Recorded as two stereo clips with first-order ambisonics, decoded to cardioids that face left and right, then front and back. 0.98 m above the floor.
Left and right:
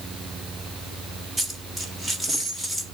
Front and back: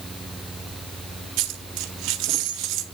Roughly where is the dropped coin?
Behind.